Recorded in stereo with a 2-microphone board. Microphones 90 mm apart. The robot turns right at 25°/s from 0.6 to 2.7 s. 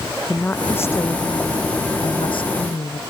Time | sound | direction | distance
0.3 | a woman speaking | 20° left | ?